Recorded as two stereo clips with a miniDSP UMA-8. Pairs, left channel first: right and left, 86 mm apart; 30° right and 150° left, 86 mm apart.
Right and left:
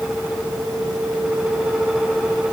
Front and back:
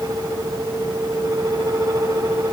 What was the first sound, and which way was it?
Only background noise.